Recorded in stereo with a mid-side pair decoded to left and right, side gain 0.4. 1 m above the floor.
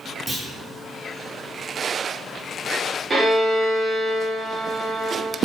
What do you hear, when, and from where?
0.3 s a clunk: 30° right, 2.0 m
3.1 s a violin: 35° right, 3.5 m